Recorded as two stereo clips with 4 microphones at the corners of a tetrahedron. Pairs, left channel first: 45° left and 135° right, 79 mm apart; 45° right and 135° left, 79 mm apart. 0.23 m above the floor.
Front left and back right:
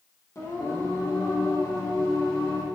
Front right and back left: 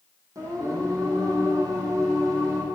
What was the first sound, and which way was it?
Singing, 90° left.